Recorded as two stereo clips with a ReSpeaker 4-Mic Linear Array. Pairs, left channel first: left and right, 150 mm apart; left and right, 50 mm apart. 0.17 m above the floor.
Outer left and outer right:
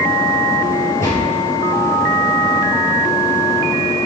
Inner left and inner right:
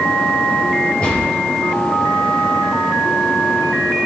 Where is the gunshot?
15° left (ahead or behind), 3.5 m.